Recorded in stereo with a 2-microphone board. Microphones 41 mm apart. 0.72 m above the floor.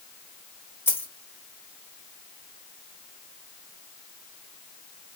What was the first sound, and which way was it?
A dropped coin, 65° left (ahead or behind).